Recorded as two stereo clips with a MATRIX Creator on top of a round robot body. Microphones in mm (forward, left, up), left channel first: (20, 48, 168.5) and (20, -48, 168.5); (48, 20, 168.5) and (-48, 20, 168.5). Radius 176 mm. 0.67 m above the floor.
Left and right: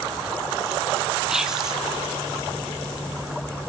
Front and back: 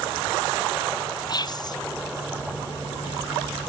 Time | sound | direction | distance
1.3 | whispering | 10° right | 0.5 m